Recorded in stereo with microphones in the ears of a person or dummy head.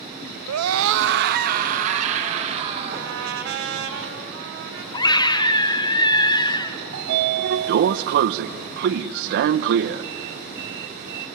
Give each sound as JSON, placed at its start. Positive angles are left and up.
{"t": 0.5, "sound": "a scream", "side_deg": -70, "distance_m": 0.8}
{"t": 2.9, "sound": "a trumpet", "side_deg": -60, "distance_m": 1.9}
{"t": 4.9, "sound": "a scream", "side_deg": 20, "distance_m": 1.2}
{"t": 6.9, "sound": "a sliding door", "side_deg": -55, "distance_m": 0.7}